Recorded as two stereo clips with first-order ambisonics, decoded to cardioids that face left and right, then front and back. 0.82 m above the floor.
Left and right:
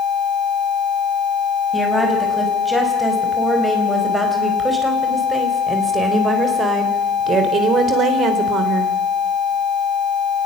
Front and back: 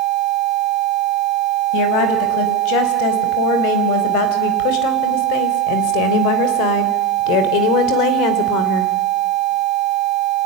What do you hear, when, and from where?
1.7 s a woman speaking: 5° left, 5.5 m; by 8.9 s 40° right, 3 m